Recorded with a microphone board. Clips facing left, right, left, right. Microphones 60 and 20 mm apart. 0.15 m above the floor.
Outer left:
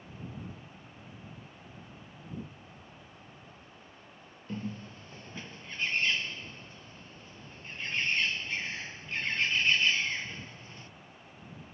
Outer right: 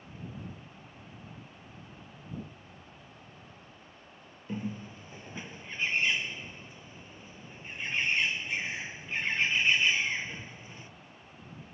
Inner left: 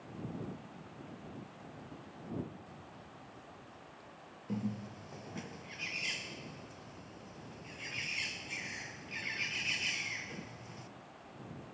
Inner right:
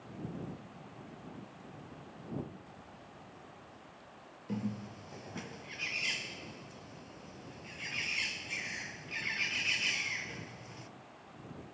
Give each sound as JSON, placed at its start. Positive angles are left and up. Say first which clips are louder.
{"t": 4.5, "sound": "a bird", "louder": "outer right 2 dB, even", "side_deg": -15}